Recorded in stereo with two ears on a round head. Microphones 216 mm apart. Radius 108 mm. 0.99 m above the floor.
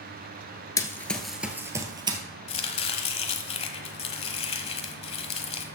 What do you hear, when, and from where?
0.8 s running footsteps: 15° left (ahead or behind), 1.1 m; by 2.2 s 20° right (ahead or behind), 1.6 m
2.5 s chopping: 25° left (ahead or behind), 1.1 m